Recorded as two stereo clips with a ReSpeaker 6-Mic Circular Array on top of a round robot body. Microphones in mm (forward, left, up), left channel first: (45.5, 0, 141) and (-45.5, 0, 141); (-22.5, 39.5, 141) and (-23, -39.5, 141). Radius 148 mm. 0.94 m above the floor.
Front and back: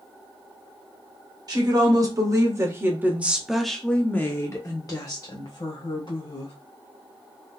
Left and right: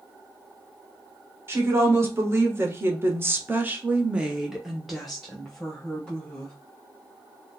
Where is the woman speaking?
145° right, 1.4 m; by 6.5 s 15° left, 1.6 m.